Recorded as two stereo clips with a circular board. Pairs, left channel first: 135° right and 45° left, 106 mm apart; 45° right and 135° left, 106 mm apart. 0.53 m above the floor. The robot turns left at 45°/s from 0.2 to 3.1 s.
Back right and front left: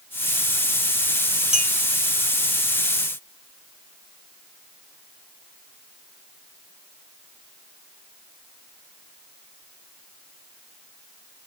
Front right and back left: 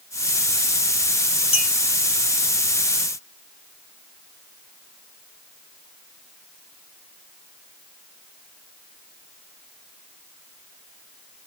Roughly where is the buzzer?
No buzzer in this recording.